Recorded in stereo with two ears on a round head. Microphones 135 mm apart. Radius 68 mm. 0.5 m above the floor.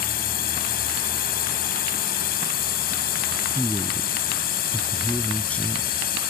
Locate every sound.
0.0 s a drone: 70° left (ahead or behind)
3.5 s a man speaking: 10° left (ahead or behind)